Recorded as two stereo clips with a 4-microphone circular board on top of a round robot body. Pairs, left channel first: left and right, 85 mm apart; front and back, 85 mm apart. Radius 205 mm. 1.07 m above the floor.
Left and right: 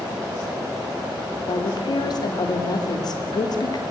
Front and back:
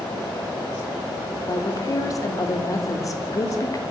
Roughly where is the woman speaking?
Ahead left.